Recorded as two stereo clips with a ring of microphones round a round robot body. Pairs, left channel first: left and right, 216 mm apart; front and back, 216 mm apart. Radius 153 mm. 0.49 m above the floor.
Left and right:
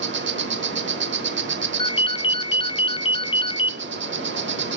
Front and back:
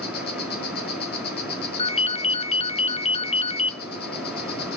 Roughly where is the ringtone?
Ahead left.